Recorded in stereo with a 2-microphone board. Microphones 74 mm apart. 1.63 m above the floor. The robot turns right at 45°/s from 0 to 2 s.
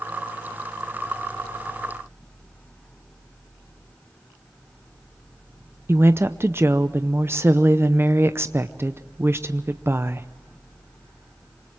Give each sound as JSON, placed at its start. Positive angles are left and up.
{"t": 5.9, "sound": "a woman speaking", "side_deg": -35, "distance_m": 0.7}